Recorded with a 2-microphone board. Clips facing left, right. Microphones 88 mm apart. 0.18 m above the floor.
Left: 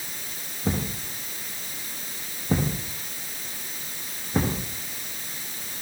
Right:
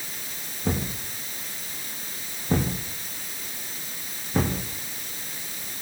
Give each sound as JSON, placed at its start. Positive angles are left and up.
{"t": 0.7, "sound": "a thud", "side_deg": 5, "distance_m": 9.5}